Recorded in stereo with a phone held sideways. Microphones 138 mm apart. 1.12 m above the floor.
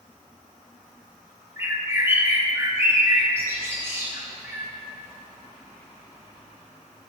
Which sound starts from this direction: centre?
A bird, at 1.6 s.